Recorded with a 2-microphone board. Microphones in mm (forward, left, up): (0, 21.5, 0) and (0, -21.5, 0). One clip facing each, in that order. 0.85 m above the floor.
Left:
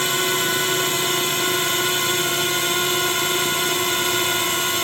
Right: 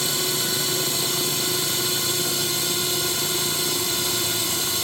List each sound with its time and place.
0.0 s a drone: 45° left (ahead or behind)